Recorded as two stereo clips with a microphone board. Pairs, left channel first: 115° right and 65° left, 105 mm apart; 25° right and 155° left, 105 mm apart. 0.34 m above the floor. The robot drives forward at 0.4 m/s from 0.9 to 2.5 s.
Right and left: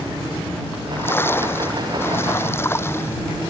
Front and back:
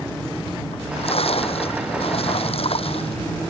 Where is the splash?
45° right.